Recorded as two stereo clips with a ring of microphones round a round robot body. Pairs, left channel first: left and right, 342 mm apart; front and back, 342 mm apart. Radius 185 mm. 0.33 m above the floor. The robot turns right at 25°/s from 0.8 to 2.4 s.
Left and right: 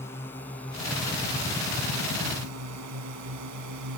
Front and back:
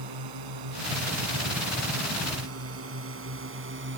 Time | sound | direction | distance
0.0 | a drone | 175° left | ?